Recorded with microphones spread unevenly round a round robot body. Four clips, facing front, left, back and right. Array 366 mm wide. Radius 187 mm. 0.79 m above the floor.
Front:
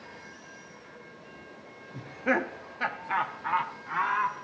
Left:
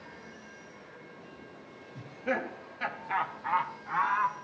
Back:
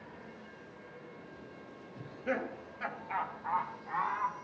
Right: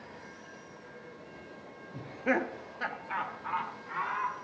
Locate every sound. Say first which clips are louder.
1.9 s laughter: right 3 dB, front 7 dB; 35° right, 1.5 m; by 4.3 s 30° left, 2 m